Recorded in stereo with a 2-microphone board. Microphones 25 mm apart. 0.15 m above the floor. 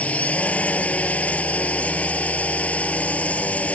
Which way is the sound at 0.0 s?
65° left (ahead or behind).